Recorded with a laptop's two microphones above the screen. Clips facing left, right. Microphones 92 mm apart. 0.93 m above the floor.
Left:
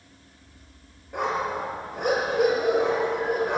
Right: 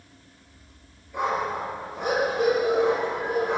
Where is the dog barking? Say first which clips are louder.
Even; 60° left (ahead or behind), 8 m.